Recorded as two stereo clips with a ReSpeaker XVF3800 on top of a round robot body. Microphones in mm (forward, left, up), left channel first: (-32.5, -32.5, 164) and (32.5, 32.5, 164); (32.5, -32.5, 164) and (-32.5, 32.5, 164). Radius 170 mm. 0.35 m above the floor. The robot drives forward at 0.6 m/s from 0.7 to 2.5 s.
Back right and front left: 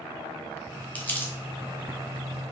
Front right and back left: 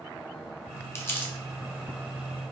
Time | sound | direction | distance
0.9 | crumpling | 75° right | 1.3 m